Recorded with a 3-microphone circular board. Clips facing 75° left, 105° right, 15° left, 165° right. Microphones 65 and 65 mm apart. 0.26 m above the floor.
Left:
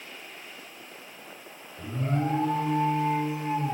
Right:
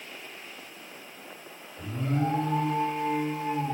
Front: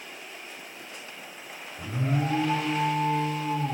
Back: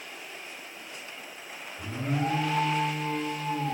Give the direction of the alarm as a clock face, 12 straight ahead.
9 o'clock.